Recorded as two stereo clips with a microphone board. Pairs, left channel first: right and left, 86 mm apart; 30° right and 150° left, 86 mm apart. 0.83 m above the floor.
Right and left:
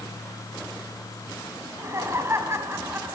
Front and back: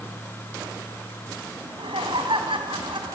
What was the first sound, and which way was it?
Laughter, 145° left.